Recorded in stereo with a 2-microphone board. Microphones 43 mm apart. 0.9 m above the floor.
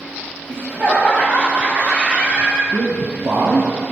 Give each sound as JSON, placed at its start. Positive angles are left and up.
{"t": 0.5, "sound": "laughter", "side_deg": -45, "distance_m": 4.0}
{"t": 2.7, "sound": "a man speaking", "side_deg": -70, "distance_m": 1.3}